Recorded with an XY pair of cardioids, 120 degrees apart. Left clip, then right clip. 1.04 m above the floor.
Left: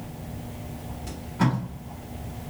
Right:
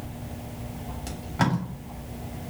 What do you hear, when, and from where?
1.1 s tape being pulled: 55° right, 3 m